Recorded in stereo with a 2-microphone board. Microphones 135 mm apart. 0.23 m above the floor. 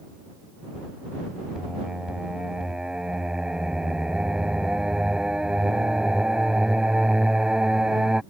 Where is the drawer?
I don't hear a drawer.